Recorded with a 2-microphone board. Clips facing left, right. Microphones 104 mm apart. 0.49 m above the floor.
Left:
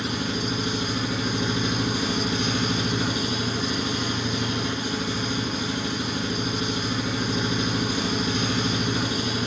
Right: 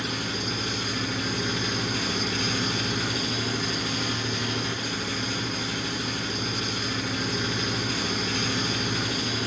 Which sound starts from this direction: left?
An engine running, at 0.0 s.